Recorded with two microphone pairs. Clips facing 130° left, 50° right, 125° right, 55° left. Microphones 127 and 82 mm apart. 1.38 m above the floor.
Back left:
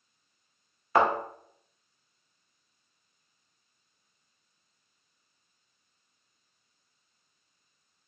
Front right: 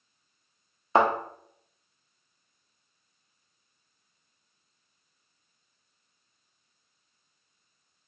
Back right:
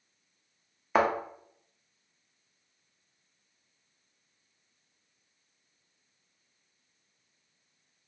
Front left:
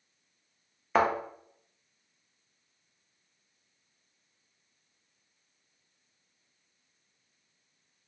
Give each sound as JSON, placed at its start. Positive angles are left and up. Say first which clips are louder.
{"t": 0.9, "sound": "a thud", "louder": "front right 1 dB, even", "azimuth_deg": -35, "distance_m": 0.7}